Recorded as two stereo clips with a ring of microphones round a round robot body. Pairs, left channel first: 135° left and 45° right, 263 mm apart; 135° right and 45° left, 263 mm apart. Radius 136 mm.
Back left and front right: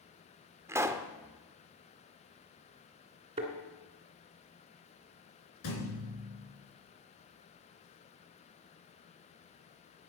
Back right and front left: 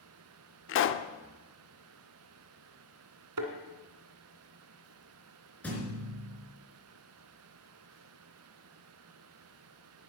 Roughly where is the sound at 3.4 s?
Ahead left.